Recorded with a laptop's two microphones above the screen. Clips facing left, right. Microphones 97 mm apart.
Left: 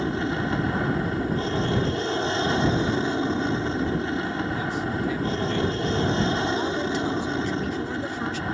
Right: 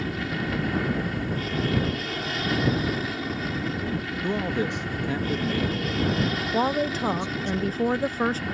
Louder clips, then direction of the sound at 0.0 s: Left 4 dB; 30° left (ahead or behind).